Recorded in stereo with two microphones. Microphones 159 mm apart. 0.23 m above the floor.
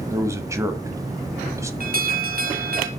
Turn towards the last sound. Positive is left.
turn(degrees=-65)  # may be behind; listen again after turning